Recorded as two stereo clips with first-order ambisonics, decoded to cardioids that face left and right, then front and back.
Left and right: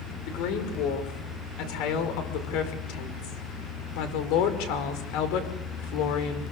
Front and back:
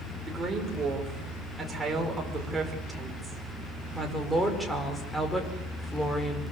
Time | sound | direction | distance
0.3 | a woman speaking | 110° left | 6.5 m